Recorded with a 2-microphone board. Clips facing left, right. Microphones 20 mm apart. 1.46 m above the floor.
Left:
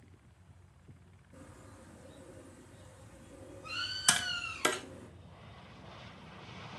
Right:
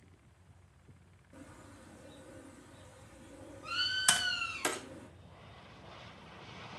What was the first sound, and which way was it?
A bird, 35° right (ahead or behind).